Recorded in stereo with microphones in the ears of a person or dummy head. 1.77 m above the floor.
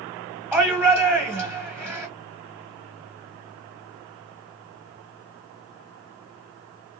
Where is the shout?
10° right (ahead or behind), 1.0 m.